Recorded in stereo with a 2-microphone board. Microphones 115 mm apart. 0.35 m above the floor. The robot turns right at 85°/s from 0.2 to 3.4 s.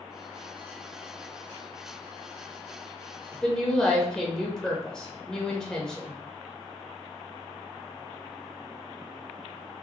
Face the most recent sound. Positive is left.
turn(degrees=5)  # may be behind; listen again after turning